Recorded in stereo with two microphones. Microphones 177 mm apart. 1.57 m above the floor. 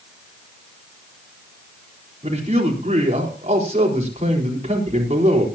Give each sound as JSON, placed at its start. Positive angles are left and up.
{"t": 2.2, "sound": "a man speaking", "side_deg": -40, "distance_m": 4.5}